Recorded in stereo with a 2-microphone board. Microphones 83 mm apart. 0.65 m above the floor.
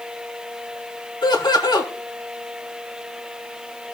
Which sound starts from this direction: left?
Laughter, at 1.2 s.